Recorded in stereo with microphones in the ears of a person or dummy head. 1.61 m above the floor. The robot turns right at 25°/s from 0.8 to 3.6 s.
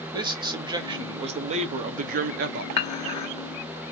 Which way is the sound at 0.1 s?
150° right.